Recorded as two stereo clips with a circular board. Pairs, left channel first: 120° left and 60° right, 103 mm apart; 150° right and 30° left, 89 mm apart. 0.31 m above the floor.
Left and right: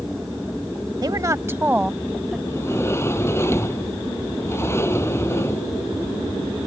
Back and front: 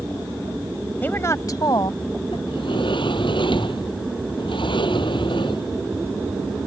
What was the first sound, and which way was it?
A woman speaking, 90° right.